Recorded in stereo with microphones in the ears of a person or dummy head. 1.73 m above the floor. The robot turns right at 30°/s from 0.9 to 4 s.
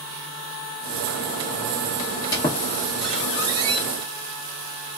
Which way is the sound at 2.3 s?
20° left (ahead or behind).